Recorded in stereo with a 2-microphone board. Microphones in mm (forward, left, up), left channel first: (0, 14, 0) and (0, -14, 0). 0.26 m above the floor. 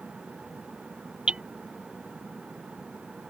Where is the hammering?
35° right (ahead or behind).